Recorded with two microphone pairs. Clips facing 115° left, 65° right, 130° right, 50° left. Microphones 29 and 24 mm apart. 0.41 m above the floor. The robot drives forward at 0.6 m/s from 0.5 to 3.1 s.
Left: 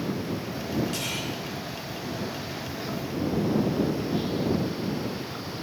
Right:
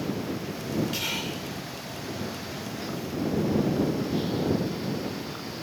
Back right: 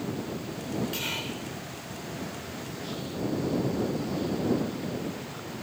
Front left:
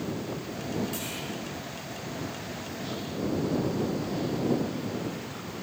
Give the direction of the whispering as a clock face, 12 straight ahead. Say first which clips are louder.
Even, back right 2 dB; 4 o'clock.